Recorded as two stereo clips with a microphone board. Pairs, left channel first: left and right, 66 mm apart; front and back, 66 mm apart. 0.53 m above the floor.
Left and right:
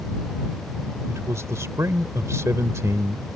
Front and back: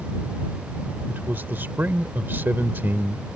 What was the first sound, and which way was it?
A man speaking, 125° right.